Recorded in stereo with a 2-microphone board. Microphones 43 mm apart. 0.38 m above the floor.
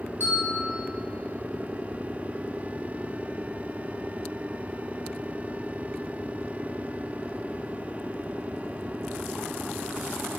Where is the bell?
65° left (ahead or behind), 3 m.